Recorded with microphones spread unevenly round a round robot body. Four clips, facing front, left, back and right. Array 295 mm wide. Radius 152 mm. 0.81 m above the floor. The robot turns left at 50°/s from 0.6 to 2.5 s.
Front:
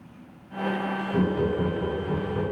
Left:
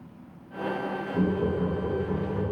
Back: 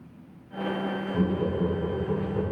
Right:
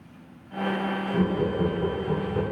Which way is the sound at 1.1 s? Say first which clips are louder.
Right 1 dB, front 3 dB; 25° right.